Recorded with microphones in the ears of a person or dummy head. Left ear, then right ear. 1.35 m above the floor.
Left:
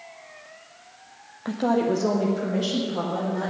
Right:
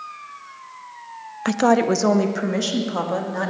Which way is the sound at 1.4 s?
70° right (ahead or behind).